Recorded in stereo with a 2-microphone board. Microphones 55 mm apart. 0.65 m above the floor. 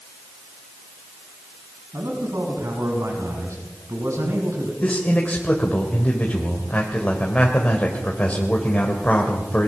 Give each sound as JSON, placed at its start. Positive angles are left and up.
{"t": 1.9, "sound": "a man speaking", "side_deg": -75, "distance_m": 6.0}
{"t": 4.8, "sound": "a man speaking", "side_deg": 25, "distance_m": 2.5}